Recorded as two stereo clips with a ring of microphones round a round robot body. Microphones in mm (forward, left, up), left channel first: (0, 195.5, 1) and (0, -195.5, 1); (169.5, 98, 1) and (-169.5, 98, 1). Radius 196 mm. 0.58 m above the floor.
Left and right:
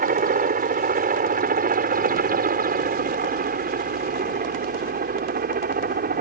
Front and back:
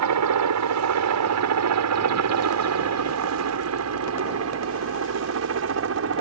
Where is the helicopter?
155° right; by 6.2 s 150° right.